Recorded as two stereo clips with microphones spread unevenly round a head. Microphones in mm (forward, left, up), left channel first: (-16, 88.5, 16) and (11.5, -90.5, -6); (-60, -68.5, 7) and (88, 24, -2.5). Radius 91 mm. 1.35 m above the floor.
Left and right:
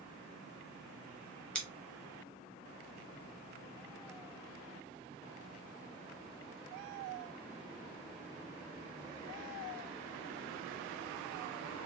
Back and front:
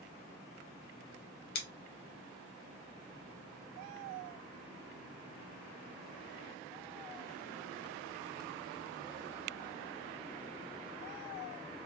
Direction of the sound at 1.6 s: Straight behind.